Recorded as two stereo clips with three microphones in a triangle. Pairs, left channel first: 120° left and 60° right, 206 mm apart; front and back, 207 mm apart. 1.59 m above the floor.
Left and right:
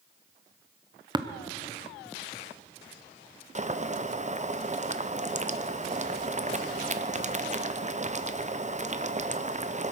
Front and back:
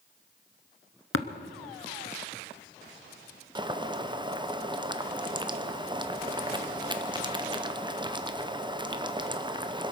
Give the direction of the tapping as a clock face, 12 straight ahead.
12 o'clock.